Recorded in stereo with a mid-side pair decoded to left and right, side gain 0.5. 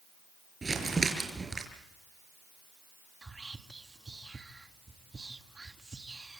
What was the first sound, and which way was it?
Crumpling, 25° right.